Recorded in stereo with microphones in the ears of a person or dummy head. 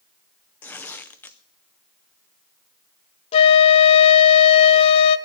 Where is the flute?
30° left (ahead or behind), 0.7 m.